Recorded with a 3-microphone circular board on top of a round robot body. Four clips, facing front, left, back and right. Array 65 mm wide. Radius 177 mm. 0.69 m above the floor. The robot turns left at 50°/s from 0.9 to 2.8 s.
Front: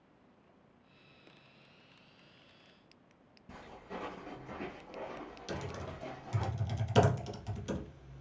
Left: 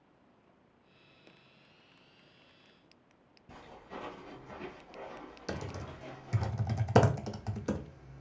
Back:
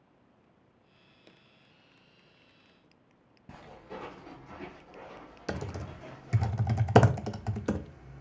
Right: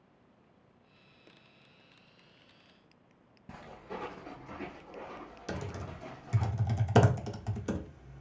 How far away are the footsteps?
About 0.9 m.